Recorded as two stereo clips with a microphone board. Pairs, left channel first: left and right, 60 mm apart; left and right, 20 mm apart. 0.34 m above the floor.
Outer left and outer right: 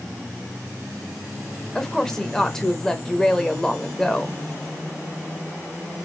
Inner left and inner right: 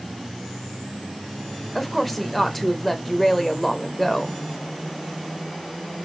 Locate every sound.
1.8 s a woman speaking: 10° left (ahead or behind), 0.9 m